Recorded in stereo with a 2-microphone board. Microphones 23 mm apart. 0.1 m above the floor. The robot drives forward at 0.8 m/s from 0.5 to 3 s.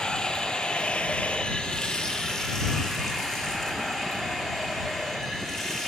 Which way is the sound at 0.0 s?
45° left (ahead or behind).